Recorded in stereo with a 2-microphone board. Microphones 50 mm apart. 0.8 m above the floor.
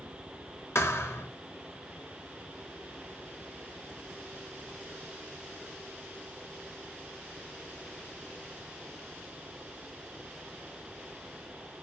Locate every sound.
0.8 s a thud: 65° left (ahead or behind), 1.2 m